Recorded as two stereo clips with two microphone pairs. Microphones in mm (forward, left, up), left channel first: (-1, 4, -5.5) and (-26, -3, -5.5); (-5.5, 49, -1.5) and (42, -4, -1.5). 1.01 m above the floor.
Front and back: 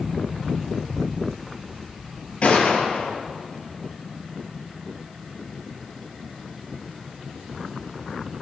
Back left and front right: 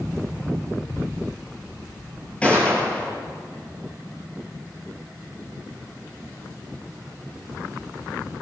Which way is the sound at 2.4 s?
60° left.